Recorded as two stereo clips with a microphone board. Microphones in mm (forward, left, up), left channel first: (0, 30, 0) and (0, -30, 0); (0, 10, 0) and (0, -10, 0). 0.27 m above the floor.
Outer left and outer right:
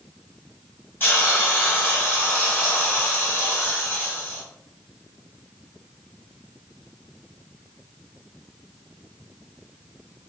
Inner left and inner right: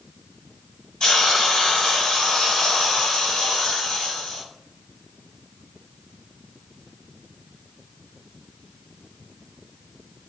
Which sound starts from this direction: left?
A hiss, at 1.0 s.